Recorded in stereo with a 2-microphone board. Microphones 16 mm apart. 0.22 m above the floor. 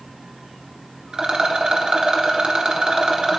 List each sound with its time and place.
1.1 s a rattle: 65° right (ahead or behind), 1.2 m